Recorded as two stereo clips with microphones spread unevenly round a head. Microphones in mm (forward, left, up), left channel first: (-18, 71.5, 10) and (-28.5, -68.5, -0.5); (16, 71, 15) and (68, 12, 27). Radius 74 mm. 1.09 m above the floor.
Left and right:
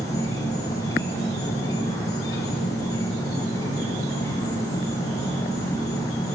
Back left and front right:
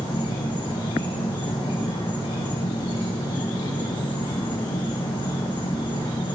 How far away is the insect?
About 9.5 m.